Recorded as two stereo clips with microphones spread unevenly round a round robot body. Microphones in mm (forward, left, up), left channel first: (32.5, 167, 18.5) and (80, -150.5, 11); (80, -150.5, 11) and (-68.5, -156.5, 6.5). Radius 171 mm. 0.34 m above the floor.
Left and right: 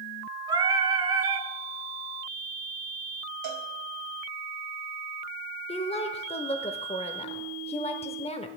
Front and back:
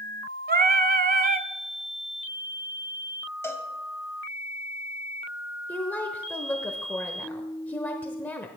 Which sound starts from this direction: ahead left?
A woman speaking, at 5.7 s.